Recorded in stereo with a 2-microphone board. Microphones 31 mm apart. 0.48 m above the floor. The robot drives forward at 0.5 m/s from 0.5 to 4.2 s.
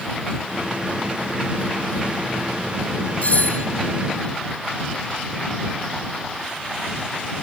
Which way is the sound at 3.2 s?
50° left (ahead or behind).